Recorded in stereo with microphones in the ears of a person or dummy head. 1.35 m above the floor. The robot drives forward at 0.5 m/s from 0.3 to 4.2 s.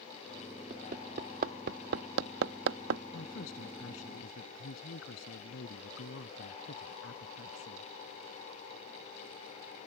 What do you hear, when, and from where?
0.7 s hammering: 45° right (ahead or behind); by 3.0 s 65° right (ahead or behind)
3.1 s a woman speaking: 75° left (ahead or behind); by 7.9 s 70° left (ahead or behind)